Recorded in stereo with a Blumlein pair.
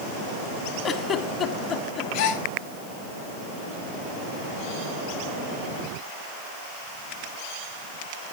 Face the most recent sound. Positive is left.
turn(degrees=45)